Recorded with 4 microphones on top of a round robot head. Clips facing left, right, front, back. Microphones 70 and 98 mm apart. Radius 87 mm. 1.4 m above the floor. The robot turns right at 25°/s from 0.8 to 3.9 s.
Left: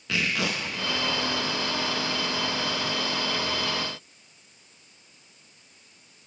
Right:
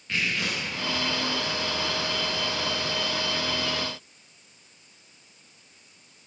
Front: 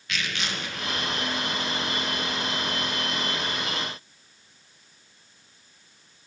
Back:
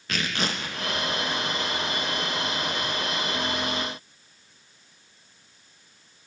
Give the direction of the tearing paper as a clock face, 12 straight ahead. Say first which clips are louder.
Left 1 dB, back 3 dB; 8 o'clock.